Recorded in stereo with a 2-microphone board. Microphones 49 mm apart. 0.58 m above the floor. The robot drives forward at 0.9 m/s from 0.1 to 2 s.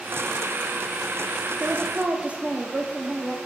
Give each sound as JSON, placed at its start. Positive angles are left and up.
{"t": 1.6, "sound": "a woman speaking", "side_deg": -30, "distance_m": 1.1}